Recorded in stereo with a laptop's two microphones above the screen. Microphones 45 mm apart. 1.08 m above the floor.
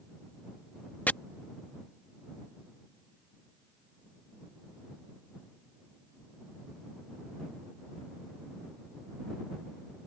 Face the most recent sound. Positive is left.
turn(degrees=35)  # may be behind; listen again after turning